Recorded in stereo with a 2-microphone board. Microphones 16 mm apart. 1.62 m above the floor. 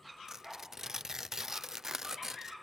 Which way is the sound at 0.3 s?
35° right (ahead or behind).